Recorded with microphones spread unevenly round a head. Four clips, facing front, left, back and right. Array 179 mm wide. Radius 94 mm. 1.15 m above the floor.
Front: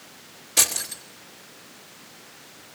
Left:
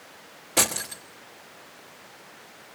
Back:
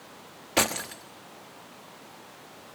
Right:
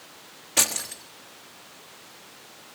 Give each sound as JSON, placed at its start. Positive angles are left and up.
{"t": 0.6, "sound": "keys jangling", "azimuth_deg": 150, "distance_m": 1.2}